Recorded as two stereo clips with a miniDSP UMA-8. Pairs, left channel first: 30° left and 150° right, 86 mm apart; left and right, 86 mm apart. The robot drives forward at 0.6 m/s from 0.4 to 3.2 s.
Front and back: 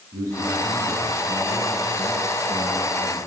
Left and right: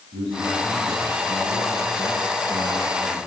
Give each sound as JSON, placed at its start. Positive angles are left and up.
{"t": 0.1, "sound": "a man speaking", "azimuth_deg": -100, "distance_m": 7.5}